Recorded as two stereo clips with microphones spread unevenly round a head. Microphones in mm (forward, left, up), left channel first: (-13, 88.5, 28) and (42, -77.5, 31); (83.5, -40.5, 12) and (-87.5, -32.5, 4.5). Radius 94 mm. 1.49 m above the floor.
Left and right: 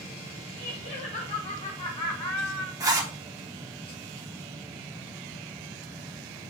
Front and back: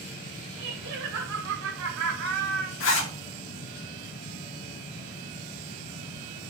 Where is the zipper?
Straight ahead, 2.5 m.